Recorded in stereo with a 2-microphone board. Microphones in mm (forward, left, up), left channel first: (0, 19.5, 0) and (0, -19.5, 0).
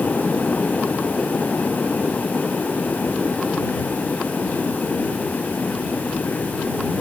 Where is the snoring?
No snoring in this recording.